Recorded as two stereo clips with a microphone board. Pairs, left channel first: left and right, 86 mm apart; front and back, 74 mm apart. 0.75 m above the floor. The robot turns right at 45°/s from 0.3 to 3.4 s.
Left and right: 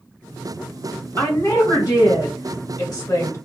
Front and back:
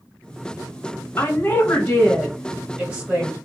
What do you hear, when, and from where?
1.2 s a woman speaking: 30° left, 1.7 m; by 3.4 s 130° left, 1.7 m